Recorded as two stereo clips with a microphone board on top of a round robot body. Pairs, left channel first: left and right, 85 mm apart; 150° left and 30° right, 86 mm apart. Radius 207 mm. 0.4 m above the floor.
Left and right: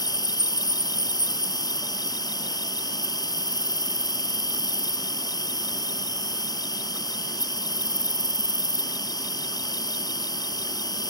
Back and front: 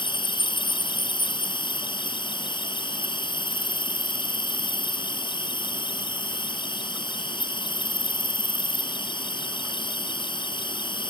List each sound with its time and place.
0.0 s an insect: 130° left